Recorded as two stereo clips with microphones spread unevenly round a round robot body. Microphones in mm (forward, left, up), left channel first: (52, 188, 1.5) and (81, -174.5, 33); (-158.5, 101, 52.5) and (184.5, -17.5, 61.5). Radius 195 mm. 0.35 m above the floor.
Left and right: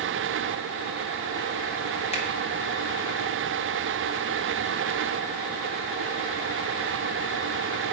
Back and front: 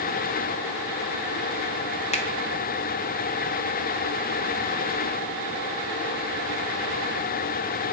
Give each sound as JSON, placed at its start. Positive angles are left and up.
{"t": 2.1, "sound": "a finger snap", "azimuth_deg": 120, "distance_m": 1.0}